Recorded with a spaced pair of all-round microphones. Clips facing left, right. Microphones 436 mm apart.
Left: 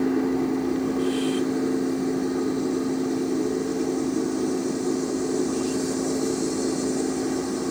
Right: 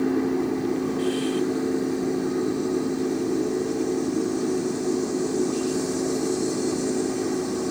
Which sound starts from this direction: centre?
A fan, at 0.0 s.